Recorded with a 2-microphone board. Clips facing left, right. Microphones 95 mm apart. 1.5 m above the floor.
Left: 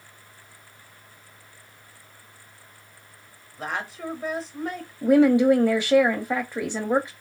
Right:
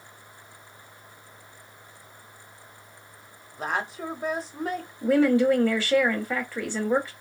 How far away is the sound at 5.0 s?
About 0.5 m.